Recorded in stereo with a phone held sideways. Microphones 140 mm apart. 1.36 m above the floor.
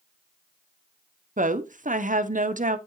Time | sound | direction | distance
1.4 | a woman speaking | 65° right (ahead or behind) | 0.8 m